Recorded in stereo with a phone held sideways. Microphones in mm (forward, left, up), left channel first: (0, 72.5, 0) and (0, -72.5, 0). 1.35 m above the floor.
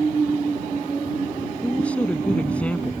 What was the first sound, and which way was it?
A woman speaking, 10° left (ahead or behind).